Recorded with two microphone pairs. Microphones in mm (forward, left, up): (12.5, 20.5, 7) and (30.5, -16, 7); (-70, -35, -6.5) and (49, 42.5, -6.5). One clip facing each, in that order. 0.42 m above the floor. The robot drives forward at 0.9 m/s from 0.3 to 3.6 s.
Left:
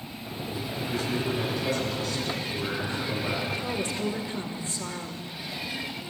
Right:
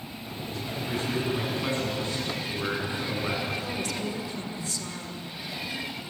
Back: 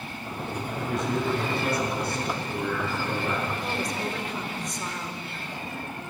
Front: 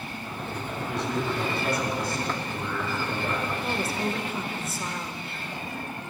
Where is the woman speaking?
110° left, 1.5 m.